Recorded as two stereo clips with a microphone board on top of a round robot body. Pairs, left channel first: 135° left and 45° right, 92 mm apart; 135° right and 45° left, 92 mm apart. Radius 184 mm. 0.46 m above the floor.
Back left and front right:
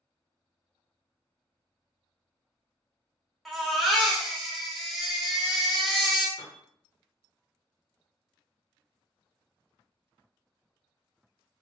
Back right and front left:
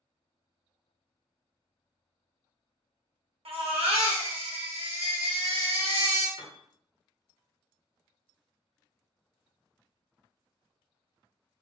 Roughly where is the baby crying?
Ahead left.